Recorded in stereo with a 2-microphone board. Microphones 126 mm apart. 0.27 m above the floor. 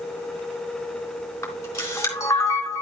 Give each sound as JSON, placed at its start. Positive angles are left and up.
{"t": 1.4, "sound": "a camera shutter", "side_deg": 25, "distance_m": 3.5}